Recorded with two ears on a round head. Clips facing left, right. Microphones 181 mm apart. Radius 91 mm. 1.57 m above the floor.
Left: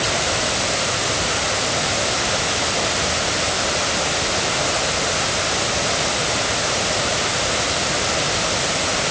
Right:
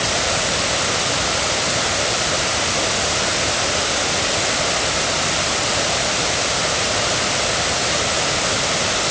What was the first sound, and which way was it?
Only background noise.